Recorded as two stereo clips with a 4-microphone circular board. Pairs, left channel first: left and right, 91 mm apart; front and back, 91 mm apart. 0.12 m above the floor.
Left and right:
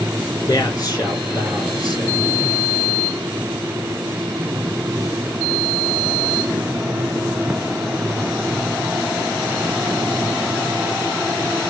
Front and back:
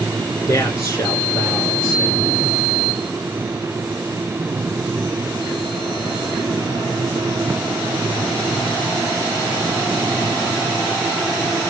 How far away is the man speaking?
About 3 m.